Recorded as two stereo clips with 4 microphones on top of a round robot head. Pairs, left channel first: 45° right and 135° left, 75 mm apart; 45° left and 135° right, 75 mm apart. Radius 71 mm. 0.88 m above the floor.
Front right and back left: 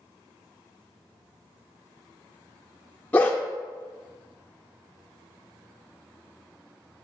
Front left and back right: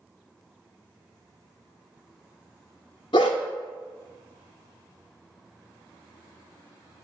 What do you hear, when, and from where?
3.1 s a dog barking: 25° left, 0.6 m